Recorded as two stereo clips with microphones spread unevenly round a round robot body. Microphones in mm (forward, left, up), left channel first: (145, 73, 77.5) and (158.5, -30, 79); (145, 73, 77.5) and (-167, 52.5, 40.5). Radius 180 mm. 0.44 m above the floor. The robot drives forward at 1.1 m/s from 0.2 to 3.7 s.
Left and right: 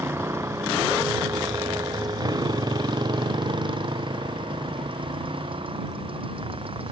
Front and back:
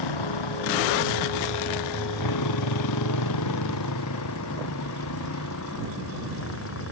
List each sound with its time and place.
0.0 s a motorcycle: 15° right; by 6.9 s 50° right